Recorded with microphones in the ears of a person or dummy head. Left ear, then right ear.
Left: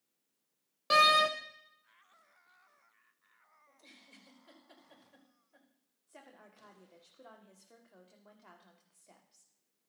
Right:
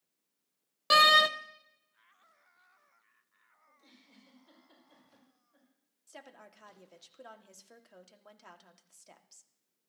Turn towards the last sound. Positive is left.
turn(degrees=-75)  # may be behind; listen again after turning